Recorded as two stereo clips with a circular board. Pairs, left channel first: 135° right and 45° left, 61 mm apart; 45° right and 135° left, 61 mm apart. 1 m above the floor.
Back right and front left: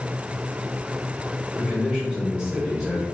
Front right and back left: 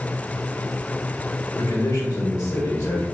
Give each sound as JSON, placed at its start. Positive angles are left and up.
{"t": 1.6, "sound": "a man speaking", "azimuth_deg": -30, "distance_m": 1.0}